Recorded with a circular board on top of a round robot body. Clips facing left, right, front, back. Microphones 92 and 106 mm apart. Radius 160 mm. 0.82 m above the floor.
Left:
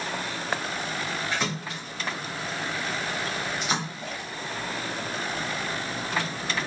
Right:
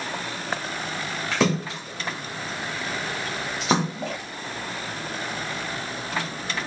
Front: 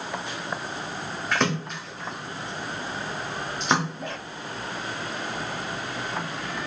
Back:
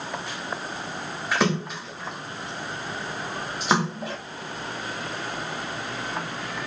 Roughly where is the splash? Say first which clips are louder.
Right 7 dB, back 2 dB; right.